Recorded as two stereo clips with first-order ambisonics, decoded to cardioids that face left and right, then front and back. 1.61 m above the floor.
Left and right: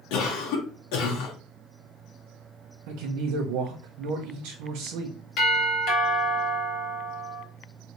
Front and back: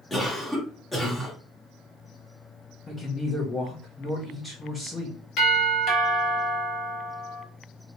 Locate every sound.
0.1 s a cough: 85° left, 1.4 m
2.9 s a man speaking: 75° right, 0.7 m
5.4 s a doorbell: 50° left, 1.8 m